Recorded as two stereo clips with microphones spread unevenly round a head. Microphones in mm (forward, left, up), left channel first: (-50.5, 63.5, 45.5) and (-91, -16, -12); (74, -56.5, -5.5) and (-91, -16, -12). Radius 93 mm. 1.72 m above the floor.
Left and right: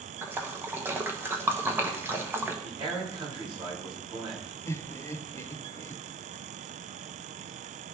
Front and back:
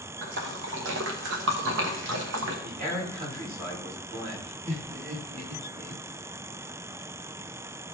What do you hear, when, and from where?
0.2 s a splash: 175° left, 1.3 m
2.6 s a man speaking: 155° right, 5 m
4.7 s laughter: 110° left, 1.0 m